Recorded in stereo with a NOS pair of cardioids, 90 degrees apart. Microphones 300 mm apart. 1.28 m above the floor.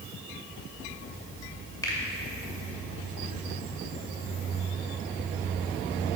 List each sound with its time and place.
1.8 s a finger snap: 10° left, 2.5 m